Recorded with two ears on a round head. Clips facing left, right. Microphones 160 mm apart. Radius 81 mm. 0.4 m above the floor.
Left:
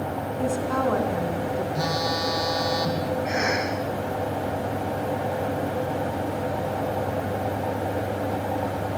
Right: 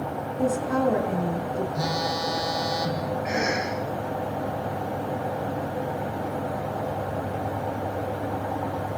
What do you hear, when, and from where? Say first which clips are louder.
0.4 s a woman speaking: right 2 dB; 10° right (ahead or behind), 5 m
1.8 s a phone buzzing: left 1 dB; 5° right (ahead or behind), 4 m
3.2 s a cough: left 1 dB; 5° right (ahead or behind), 9 m